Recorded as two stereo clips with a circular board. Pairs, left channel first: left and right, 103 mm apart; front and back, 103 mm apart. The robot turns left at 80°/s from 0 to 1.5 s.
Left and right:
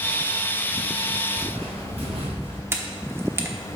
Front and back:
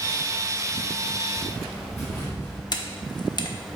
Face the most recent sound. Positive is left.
turn(degrees=-30)